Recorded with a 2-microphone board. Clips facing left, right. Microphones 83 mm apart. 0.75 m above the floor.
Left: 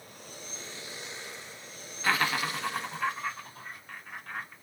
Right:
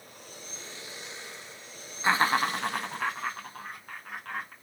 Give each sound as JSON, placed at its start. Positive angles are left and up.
{"t": 2.0, "sound": "laughter", "side_deg": -25, "distance_m": 0.7}